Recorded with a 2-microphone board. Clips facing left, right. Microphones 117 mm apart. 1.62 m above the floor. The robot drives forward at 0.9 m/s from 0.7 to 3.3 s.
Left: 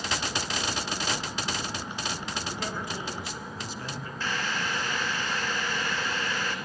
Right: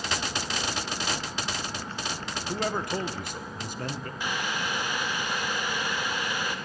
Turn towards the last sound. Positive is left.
turn(degrees=-15)  # may be behind; listen again after turning